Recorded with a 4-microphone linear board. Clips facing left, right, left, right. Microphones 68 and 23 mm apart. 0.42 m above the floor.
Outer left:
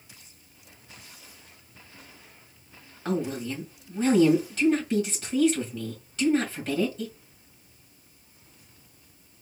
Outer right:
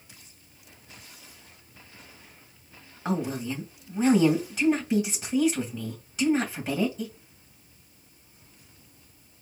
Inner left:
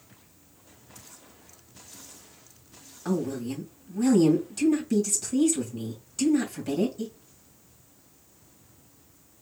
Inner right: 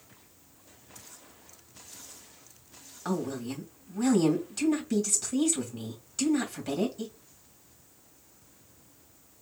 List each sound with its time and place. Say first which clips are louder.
3.0 s a woman speaking: even, inner left 3 dB; 10° right (ahead or behind), 2 m